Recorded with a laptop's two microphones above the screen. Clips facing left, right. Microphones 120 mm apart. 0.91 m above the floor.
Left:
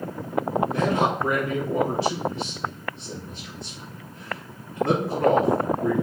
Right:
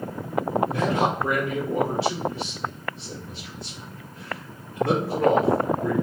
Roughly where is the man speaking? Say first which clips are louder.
Left 1 dB; left.